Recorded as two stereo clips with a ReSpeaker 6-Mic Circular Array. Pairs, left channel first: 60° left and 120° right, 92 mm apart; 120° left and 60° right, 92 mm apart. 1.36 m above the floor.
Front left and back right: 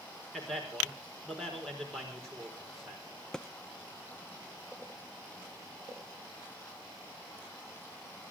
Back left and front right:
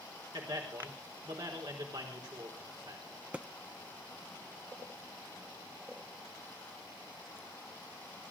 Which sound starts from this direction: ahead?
A thud, at 3.3 s.